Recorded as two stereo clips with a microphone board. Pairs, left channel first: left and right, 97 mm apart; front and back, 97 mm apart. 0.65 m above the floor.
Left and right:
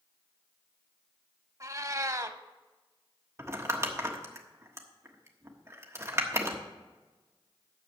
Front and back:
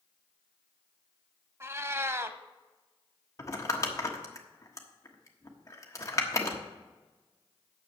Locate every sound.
1.6 s a cat meowing: 130° right, 0.6 m
3.4 s crumpling: 40° right, 1.3 m